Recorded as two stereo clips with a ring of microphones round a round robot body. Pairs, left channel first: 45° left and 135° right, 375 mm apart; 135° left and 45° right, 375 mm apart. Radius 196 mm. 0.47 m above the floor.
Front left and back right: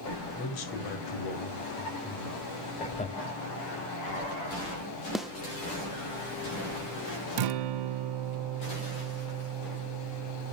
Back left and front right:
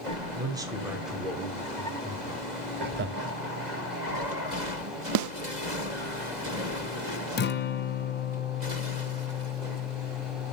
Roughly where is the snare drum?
Ahead right.